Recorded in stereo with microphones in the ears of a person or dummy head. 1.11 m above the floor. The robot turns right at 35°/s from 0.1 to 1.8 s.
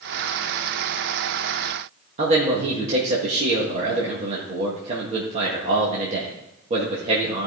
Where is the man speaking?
40° right (ahead or behind), 1.7 m.